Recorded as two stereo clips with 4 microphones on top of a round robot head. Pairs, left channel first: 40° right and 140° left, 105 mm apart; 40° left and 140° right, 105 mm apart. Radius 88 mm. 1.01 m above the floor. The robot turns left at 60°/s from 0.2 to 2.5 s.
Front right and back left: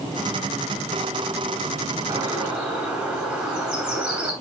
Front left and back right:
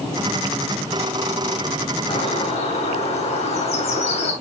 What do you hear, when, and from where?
2.1 s a bird: 85° left, 7.5 m; by 4.3 s 60° left, 7.5 m